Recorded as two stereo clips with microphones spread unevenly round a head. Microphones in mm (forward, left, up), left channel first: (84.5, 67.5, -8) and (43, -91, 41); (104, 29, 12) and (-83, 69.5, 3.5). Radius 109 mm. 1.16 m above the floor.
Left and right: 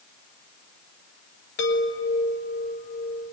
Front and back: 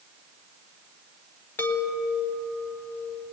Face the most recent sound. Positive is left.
turn(degrees=70)